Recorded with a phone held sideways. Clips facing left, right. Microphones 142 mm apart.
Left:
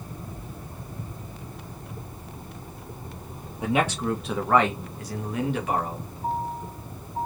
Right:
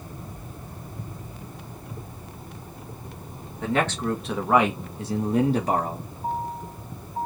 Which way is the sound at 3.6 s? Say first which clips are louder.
Even; 15° left (ahead or behind).